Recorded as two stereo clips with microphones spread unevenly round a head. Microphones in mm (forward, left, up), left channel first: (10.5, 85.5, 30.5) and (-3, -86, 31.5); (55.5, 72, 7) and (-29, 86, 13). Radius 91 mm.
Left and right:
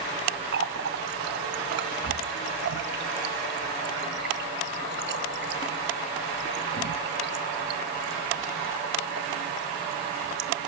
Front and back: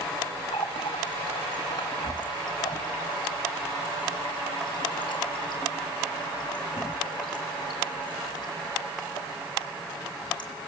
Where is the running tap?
70° right, 1.0 m.